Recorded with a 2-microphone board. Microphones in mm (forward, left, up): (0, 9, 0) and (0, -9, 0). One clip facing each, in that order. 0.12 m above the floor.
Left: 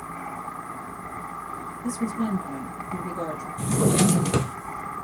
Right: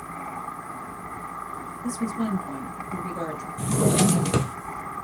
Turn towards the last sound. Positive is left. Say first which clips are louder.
# even
turn(degrees=-10)  # may be behind; listen again after turning